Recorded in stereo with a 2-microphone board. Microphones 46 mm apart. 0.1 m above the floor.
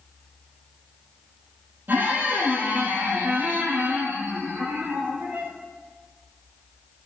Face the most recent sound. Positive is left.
turn(degrees=-50)  # may be behind; listen again after turning